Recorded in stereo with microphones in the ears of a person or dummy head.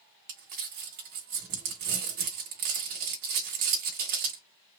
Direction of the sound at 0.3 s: 45° right (ahead or behind).